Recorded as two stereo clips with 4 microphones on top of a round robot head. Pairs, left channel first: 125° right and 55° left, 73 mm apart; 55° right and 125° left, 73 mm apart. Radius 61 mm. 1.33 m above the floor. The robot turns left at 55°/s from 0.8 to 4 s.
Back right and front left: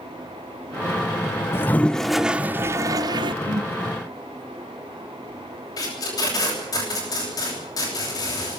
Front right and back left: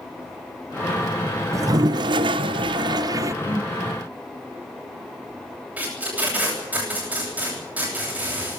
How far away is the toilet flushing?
About 0.7 m.